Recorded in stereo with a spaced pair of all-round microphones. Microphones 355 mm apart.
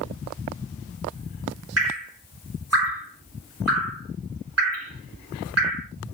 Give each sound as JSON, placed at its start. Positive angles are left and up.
{"t": 1.8, "sound": "dripping", "side_deg": -45, "distance_m": 2.5}